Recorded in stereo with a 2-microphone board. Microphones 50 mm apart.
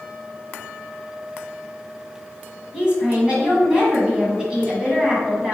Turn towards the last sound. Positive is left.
turn(degrees=-20)  # may be behind; listen again after turning